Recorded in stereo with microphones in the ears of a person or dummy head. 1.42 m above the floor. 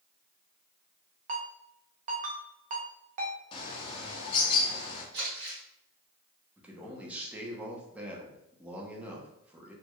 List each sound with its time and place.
1.3 s a ringtone: 30° right (ahead or behind), 0.8 m
3.5 s a bird: 20° left (ahead or behind), 0.8 m
5.1 s crumpling: 55° right (ahead or behind), 1.7 m
6.6 s a man speaking: 15° right (ahead or behind), 0.9 m